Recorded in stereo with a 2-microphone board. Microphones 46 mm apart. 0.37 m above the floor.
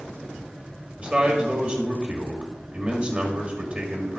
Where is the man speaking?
30° right (ahead or behind), 1.7 m.